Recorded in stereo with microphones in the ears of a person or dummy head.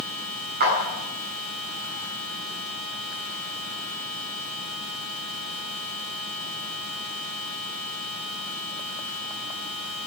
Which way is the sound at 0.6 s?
50° right (ahead or behind).